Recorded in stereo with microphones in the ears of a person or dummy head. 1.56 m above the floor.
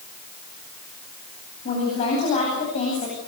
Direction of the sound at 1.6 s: 40° left (ahead or behind).